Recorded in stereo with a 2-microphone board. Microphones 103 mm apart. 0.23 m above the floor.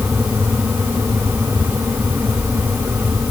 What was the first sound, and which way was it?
Only background noise.